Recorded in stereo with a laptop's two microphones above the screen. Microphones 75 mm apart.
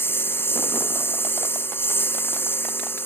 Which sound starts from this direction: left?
A lawn mower, at 0.0 s.